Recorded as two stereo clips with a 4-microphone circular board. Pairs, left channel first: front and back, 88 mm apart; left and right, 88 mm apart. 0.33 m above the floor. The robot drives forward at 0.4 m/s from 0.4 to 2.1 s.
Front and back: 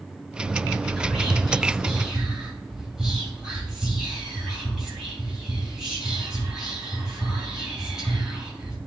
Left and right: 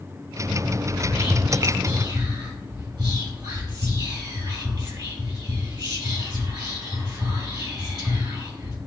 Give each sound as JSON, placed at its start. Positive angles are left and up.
{"t": 1.0, "sound": "whispering", "azimuth_deg": -85, "distance_m": 3.0}